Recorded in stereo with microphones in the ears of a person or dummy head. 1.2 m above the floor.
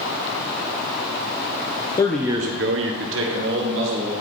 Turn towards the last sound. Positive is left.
turn(degrees=-65)  # may be behind; listen again after turning